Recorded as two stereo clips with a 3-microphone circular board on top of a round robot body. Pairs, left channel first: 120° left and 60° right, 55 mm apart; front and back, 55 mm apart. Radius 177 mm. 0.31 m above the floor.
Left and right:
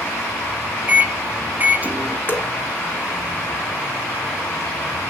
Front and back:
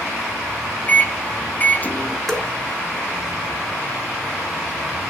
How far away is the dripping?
About 1.4 m.